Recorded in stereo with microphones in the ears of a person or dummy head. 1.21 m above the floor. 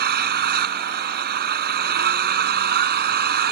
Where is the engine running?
60° right (ahead or behind).